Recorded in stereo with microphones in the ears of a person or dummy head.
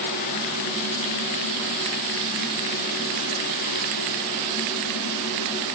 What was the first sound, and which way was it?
Only background noise.